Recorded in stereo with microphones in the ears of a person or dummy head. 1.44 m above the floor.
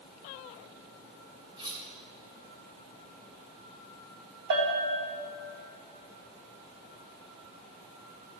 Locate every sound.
1.6 s cutlery clinking: 25° right (ahead or behind), 2.5 m
4.5 s a bell: 60° right (ahead or behind), 2 m